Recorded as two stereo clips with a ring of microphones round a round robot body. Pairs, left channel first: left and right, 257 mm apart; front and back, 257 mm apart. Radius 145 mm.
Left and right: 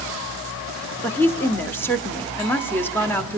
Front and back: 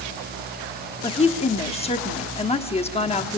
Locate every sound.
1.0 s a woman speaking: 20° left, 1.2 m